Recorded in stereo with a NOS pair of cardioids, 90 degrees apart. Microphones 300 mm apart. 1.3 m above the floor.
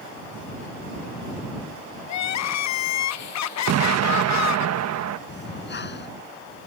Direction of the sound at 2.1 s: 65° left.